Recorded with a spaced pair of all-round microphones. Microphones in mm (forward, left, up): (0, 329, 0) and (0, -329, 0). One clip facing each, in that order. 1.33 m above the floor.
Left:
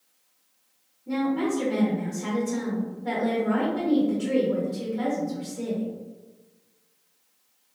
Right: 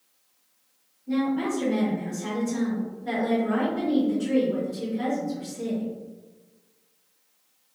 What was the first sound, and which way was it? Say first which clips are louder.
A woman speaking: even; 75° left (ahead or behind).